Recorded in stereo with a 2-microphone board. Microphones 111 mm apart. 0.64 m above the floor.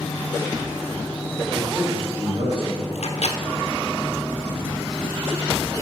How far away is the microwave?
About 1.0 m.